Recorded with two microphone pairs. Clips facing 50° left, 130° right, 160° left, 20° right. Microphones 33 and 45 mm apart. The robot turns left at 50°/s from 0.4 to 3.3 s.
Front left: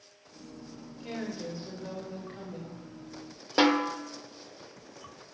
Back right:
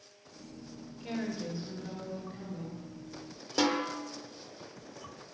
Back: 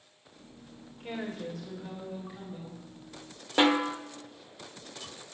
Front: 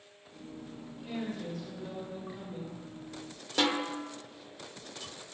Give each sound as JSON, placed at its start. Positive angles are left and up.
{"t": 1.0, "sound": "a woman speaking", "azimuth_deg": 125, "distance_m": 3.5}
{"t": 3.6, "sound": "a snare drum", "azimuth_deg": 95, "distance_m": 0.9}